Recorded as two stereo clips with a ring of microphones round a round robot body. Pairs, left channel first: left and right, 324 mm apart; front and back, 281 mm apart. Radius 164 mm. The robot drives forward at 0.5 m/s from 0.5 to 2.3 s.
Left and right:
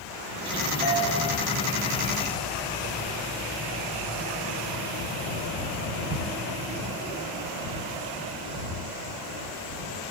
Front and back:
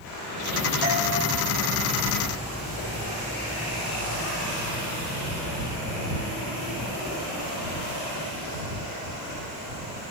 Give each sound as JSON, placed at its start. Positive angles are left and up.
{"t": 0.8, "sound": "a doorbell", "azimuth_deg": 110, "distance_m": 7.0}